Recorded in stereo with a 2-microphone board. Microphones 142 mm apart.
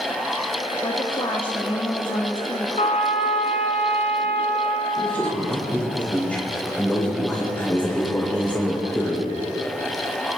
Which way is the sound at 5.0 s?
10° left (ahead or behind).